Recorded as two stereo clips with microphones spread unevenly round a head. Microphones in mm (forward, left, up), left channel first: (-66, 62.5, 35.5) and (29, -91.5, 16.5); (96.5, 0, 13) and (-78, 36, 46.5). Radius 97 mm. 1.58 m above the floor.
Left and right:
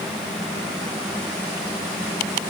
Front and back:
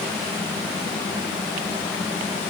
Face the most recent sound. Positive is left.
No sound to turn to.